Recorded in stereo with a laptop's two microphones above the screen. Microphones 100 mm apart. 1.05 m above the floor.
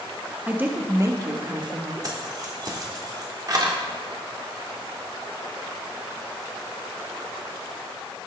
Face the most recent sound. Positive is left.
turn(degrees=-40)  # may be behind; listen again after turning